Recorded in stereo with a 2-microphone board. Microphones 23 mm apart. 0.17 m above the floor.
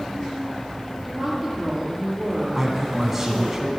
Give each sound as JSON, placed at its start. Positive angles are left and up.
{"t": 1.0, "sound": "a woman speaking", "side_deg": -10, "distance_m": 5.5}
{"t": 2.5, "sound": "a man speaking", "side_deg": -15, "distance_m": 1.0}